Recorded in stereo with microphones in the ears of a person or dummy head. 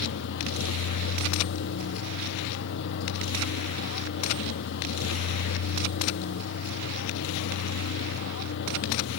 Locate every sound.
0.0 s a vehicle: 70° left (ahead or behind)